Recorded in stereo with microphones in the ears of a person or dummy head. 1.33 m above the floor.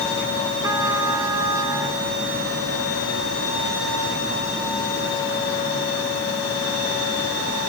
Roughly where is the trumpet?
Centre.